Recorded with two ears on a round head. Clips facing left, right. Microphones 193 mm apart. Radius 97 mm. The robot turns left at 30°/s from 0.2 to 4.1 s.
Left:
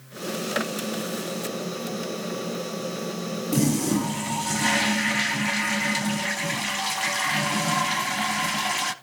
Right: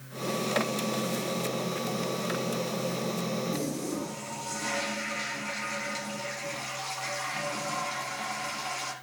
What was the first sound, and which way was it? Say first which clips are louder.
A toilet flushing: left 9 dB; 85° left.